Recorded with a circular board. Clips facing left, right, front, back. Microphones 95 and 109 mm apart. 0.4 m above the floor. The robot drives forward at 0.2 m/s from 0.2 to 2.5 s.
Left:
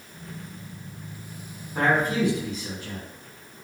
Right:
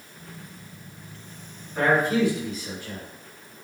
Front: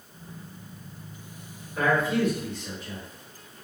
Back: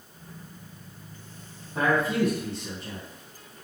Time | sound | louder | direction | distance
1.8 | a man speaking | right 2 dB, even | 155° left | 1.8 m